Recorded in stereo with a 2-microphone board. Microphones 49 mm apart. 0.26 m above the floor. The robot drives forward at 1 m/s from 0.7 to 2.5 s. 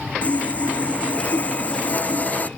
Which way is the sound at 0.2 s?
30° left (ahead or behind).